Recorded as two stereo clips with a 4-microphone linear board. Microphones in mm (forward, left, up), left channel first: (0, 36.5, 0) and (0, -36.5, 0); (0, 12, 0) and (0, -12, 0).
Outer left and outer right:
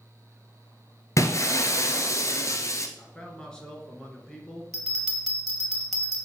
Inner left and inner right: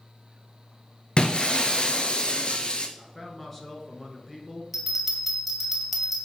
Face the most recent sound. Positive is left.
turn(degrees=5)  # may be behind; listen again after turning